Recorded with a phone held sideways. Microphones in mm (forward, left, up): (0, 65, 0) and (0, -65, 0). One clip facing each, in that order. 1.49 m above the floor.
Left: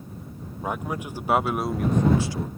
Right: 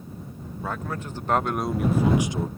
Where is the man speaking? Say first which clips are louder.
Left 2 dB; 20° left (ahead or behind); by 2.5 s 30° right (ahead or behind).